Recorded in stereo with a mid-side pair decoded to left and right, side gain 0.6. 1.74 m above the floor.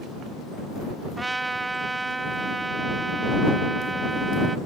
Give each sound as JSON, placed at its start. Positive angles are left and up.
{"t": 1.2, "sound": "a trumpet", "azimuth_deg": -15}